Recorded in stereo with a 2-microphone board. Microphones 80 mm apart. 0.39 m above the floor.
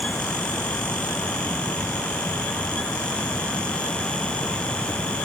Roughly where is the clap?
No clap in this recording.